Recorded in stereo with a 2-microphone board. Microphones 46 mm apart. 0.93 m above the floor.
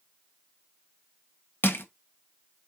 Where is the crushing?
55° left (ahead or behind), 0.7 m.